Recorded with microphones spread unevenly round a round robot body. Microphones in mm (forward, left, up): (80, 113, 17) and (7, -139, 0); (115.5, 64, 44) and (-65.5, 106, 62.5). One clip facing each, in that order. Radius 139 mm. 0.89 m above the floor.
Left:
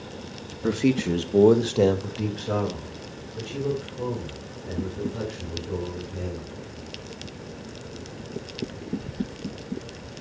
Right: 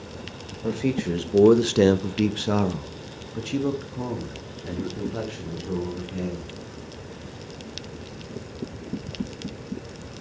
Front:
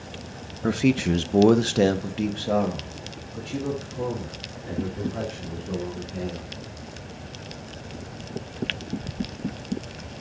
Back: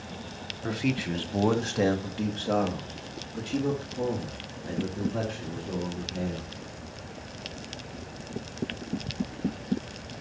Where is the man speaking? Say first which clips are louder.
Left 3 dB, front 8 dB; 10° left, 0.8 m; by 6.5 s 120° right, 3 m.